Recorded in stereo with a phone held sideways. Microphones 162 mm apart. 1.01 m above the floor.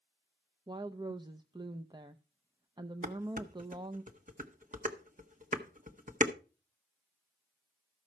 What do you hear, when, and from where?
0.7 s a woman speaking: 25° right (ahead or behind), 0.5 m
3.0 s dishes clattering: 50° right (ahead or behind), 1.0 m